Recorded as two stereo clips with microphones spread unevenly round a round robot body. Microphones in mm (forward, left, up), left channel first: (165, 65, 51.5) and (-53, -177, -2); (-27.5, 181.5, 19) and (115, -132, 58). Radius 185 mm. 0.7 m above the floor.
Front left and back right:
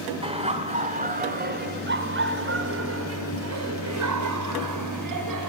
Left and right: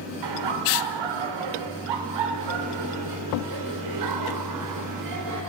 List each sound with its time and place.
0.2 s laughter: 60° right, 3 m; by 5.5 s 110° right, 3 m